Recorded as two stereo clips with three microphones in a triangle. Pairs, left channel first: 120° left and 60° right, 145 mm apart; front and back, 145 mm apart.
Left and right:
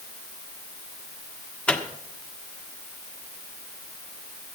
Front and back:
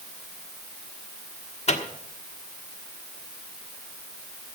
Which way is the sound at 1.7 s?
35° left.